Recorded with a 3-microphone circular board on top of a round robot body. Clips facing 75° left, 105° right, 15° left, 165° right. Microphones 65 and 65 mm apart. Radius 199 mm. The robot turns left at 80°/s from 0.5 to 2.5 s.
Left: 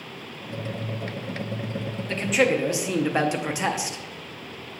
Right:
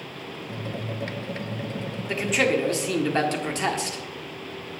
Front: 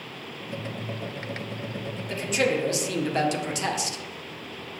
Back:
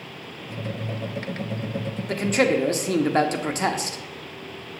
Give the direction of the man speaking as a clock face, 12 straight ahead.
6 o'clock.